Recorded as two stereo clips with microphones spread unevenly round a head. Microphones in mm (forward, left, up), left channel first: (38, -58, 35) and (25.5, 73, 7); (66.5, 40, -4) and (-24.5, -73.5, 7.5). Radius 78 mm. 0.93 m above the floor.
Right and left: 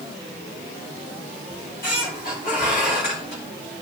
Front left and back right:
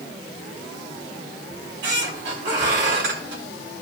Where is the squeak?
125° right, 3 m.